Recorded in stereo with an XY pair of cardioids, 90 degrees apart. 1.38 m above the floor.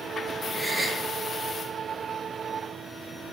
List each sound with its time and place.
0.5 s a gasp: 20° right, 1.5 m